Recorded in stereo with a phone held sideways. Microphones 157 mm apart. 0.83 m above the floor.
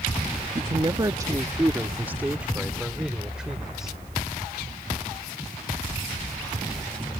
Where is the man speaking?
35° right (ahead or behind); by 4.0 s centre (ahead or behind).